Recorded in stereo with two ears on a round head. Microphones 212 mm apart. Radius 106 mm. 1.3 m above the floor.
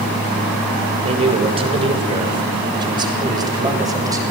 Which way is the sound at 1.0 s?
25° right (ahead or behind).